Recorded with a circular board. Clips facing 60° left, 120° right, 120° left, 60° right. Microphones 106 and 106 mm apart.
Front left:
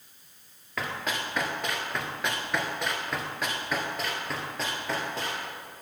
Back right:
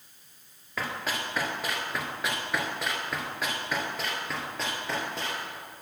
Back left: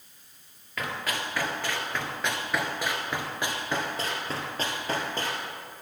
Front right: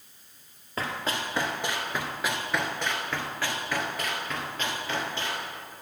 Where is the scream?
No scream in this recording.